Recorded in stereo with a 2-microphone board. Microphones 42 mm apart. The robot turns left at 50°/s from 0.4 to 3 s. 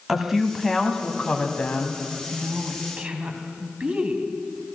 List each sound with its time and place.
0.1 s a woman speaking: 170° right, 1.3 m; by 2.0 s 110° left, 1.3 m
2.3 s a woman speaking: 90° right, 1.3 m; by 4.2 s 125° right, 1.3 m